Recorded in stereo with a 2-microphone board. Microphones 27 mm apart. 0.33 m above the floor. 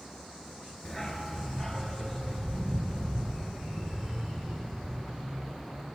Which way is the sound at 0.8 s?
10° left (ahead or behind).